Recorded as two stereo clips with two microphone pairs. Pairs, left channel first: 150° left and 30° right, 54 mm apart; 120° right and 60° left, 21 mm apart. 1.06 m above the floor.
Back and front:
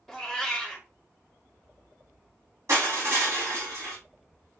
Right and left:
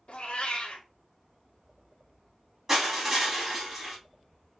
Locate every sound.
0.1 s a cat meowing: 130° right, 0.7 m
2.7 s crushing: straight ahead, 1.6 m